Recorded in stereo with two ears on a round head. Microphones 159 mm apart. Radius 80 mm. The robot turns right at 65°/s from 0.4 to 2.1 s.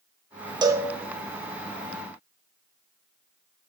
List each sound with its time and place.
0.6 s a cowbell: 25° right (ahead or behind), 0.7 m; by 0.9 s 5° right (ahead or behind), 0.7 m